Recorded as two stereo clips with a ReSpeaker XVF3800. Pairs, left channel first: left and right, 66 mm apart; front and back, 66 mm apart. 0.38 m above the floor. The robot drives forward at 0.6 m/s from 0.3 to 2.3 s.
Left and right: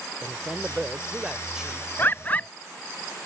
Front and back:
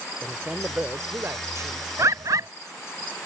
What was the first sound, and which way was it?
A man speaking, 120° right.